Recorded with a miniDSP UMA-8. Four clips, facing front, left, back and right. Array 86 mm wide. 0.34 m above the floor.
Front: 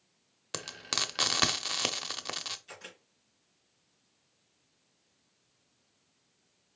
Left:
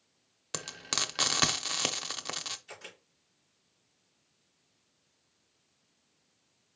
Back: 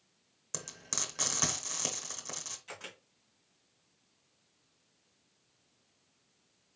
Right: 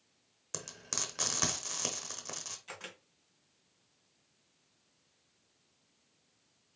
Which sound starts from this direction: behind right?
A camera shutter, at 2.7 s.